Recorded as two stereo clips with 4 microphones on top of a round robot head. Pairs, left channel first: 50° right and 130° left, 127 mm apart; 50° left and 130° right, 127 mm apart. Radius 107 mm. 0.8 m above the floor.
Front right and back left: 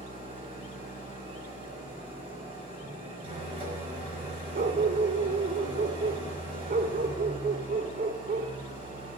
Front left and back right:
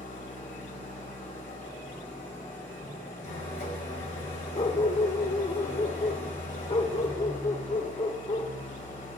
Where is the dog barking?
100° left, 1.2 m.